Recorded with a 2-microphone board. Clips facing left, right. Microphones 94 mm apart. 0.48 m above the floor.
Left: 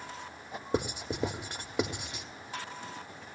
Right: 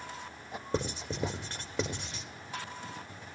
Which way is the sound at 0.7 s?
15° left (ahead or behind).